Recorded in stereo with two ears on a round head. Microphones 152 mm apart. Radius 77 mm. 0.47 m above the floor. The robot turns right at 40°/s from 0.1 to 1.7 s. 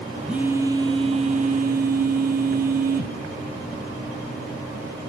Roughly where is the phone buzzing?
Behind.